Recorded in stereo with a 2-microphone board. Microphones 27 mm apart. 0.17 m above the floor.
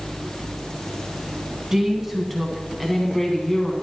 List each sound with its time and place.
1.7 s a woman speaking: 20° right (ahead or behind), 1.5 m; by 3.7 s 25° left (ahead or behind), 1.6 m